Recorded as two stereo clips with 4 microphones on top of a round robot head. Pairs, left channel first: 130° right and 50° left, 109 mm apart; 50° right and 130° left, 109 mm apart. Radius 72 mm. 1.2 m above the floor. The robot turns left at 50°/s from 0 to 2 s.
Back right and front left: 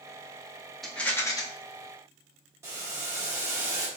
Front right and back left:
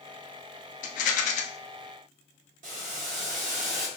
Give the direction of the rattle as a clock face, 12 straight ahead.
1 o'clock.